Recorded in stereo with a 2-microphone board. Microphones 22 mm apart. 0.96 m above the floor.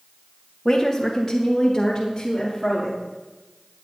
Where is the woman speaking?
20° left (ahead or behind), 0.9 m; by 3.0 s 25° left (ahead or behind), 2.5 m.